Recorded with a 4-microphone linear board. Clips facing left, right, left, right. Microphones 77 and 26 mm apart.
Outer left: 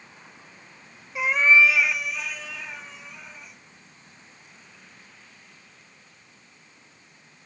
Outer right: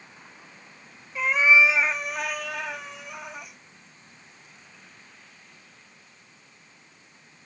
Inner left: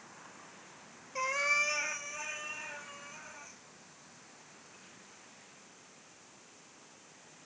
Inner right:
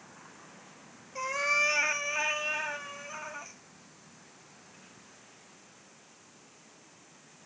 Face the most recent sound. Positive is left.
turn(degrees=-80)